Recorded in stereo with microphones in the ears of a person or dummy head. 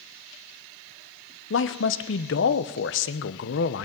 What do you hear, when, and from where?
1.5 s a man speaking: 65° left (ahead or behind), 0.8 m